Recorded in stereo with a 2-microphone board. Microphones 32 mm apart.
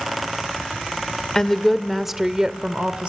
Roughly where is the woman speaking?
Centre.